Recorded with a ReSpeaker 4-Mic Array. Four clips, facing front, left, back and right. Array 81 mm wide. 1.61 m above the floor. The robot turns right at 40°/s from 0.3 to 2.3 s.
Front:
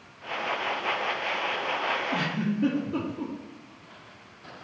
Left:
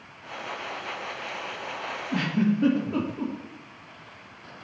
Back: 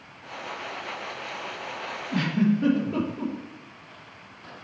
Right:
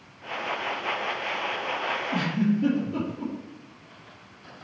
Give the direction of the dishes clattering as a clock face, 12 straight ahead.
I don't hear dishes clattering.